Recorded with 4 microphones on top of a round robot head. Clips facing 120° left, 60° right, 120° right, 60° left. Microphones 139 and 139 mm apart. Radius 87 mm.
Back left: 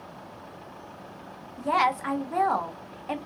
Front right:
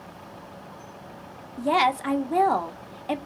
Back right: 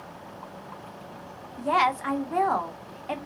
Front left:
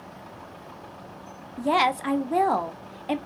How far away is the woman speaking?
About 0.9 m.